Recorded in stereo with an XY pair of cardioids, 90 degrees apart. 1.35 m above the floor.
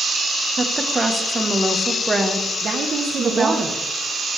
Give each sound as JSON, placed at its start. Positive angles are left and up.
{"t": 0.6, "sound": "a woman speaking", "azimuth_deg": -25, "distance_m": 1.3}
{"t": 2.6, "sound": "a woman speaking", "azimuth_deg": -55, "distance_m": 1.0}